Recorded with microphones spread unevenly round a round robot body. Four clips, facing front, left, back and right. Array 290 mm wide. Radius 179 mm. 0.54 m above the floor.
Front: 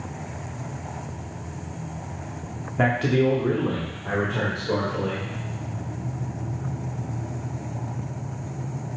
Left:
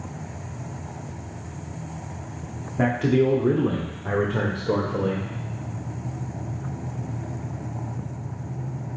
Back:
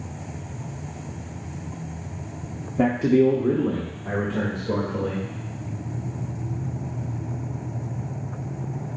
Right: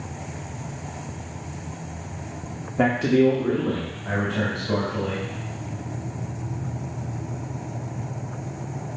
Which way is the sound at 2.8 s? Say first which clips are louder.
Right 2 dB, back 3 dB; 170° right.